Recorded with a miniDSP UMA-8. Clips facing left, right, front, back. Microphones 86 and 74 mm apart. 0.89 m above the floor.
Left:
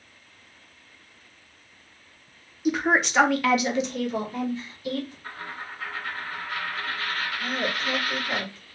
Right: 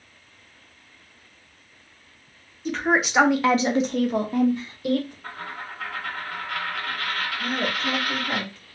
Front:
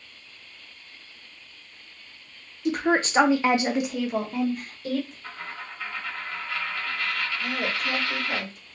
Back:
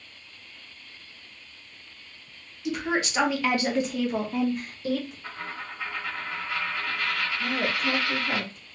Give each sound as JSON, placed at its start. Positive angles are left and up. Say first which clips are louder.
{"t": 2.6, "sound": "a woman speaking", "louder": "even, front 4 dB", "azimuth_deg": 20, "distance_m": 0.8}
{"t": 5.2, "sound": "a dropped coin", "louder": "right 2 dB, back 1 dB", "azimuth_deg": -105, "distance_m": 1.2}
{"t": 7.4, "sound": "a woman speaking", "louder": "right 2 dB, back 3 dB", "azimuth_deg": -135, "distance_m": 1.8}